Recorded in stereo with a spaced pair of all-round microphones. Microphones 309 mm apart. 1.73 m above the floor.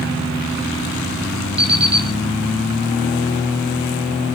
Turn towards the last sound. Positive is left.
turn(degrees=-50)  # may be behind; listen again after turning